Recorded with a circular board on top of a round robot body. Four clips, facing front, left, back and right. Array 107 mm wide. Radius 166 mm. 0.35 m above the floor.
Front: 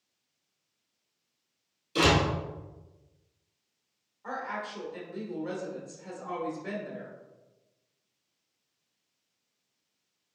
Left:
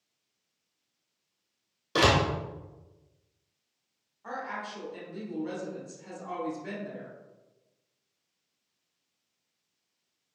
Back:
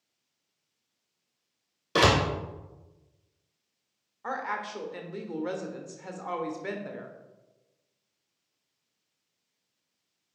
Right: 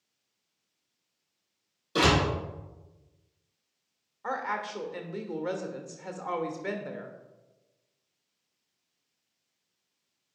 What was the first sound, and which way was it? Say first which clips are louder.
A door slam: left 1 dB, back 2 dB; 155° left.